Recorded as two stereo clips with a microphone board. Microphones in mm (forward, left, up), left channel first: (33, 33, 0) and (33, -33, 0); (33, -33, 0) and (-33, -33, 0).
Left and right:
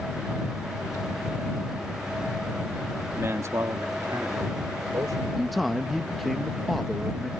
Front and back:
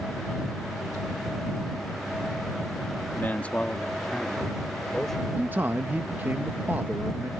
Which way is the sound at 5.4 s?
Straight behind.